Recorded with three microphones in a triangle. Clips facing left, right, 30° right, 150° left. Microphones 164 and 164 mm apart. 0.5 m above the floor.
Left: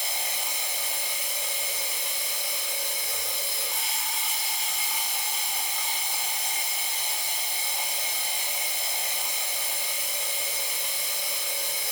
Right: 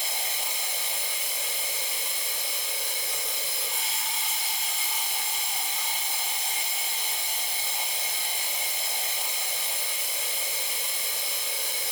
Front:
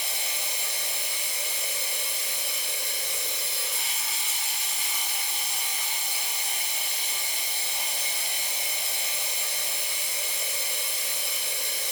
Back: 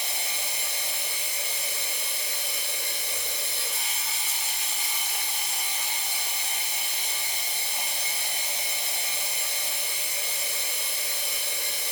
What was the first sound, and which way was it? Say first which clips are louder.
Running water: even, back 1 dB; straight behind.